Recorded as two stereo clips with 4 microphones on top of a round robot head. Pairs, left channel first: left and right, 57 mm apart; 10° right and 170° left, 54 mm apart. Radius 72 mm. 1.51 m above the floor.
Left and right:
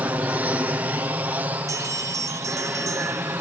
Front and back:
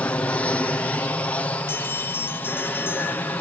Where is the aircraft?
50° right.